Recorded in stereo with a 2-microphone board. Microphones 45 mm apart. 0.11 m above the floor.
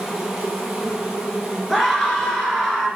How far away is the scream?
About 1.8 m.